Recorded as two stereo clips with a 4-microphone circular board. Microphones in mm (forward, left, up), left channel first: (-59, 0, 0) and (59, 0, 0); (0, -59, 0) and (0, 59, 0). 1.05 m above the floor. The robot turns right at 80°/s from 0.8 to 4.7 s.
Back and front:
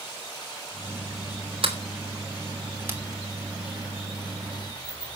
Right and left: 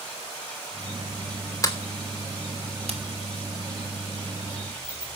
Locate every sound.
1.6 s a sliding door: 30° right, 3 m; by 5.2 s 145° right, 3 m